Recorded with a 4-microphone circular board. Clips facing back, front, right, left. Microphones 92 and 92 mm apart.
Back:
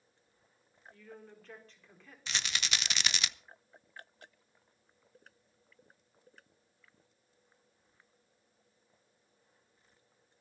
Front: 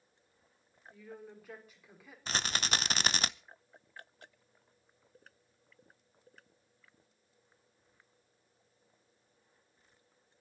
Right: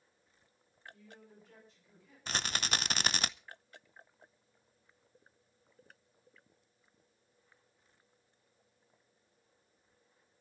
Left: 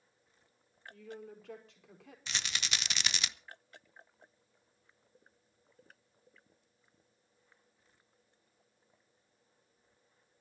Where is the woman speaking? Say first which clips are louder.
Front 3 dB, left 12 dB; 80° left, 5 m.